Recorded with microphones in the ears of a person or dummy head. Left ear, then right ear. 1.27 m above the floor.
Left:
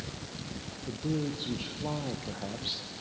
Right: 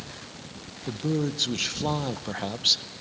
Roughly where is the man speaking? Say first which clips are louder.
Right 6 dB; right.